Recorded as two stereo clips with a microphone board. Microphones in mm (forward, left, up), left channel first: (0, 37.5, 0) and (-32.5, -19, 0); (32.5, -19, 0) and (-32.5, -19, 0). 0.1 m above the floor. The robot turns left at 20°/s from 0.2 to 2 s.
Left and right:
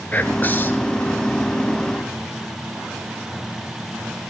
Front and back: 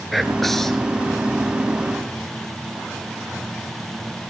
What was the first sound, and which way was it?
Whispering, 90° left.